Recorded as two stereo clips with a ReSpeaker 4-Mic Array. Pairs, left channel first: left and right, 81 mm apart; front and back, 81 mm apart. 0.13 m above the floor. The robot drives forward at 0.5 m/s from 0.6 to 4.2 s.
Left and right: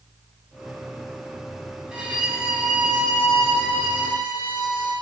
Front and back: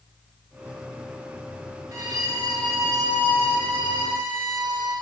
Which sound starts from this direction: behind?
A violin, at 1.9 s.